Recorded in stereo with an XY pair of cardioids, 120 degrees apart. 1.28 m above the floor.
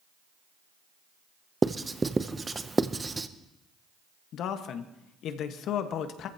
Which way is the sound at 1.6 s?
20° right.